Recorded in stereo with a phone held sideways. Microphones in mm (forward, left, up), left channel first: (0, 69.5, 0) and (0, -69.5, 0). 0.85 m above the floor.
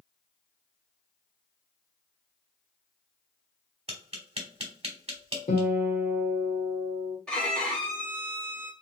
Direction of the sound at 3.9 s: 45° right (ahead or behind).